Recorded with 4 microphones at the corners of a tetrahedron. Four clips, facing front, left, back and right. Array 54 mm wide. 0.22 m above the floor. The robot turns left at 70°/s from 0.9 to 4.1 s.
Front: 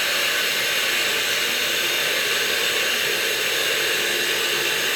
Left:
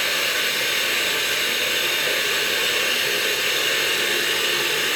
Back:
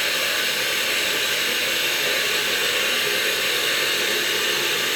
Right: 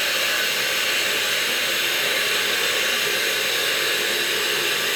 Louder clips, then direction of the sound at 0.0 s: Even, front 1 dB; 15° right.